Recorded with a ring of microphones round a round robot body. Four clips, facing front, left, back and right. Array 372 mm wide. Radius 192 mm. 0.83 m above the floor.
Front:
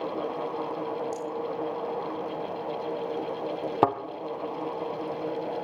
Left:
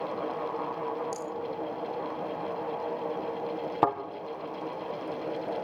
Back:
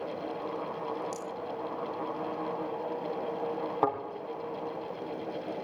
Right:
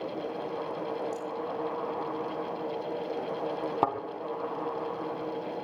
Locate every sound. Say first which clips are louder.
1.1 s a rattle: even, front 5 dB; 120° left, 0.8 m
3.8 s a thud: left 3 dB, front 5 dB; straight ahead, 4 m